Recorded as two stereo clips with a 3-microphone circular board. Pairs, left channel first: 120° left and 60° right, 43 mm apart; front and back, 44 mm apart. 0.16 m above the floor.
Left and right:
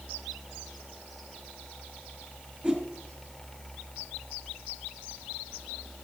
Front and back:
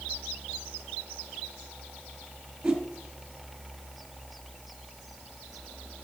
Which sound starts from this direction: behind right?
A whoosh, at 2.6 s.